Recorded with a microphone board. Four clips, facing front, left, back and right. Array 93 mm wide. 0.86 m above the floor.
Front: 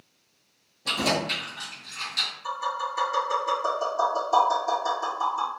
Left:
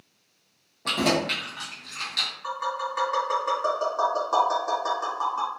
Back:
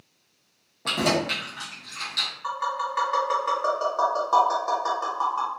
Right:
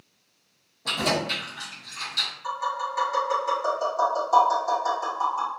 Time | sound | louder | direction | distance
0.8 | keys jangling | left 2 dB, back 2 dB | 150° left | 1.0 m
2.4 | tapping | right 1 dB, back 2 dB | 155° left | 2.0 m